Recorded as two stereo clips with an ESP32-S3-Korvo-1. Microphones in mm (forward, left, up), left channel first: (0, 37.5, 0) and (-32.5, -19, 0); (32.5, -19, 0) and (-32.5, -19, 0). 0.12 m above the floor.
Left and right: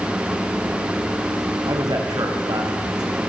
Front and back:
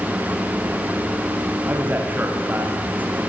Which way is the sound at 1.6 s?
115° right.